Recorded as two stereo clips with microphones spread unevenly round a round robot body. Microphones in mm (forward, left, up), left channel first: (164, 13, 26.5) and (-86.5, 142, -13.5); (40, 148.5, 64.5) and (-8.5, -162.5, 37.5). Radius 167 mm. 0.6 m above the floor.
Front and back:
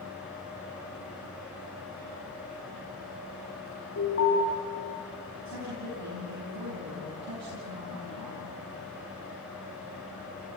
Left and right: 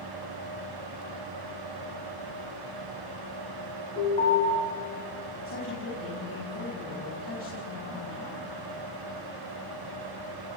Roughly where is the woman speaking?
Behind left.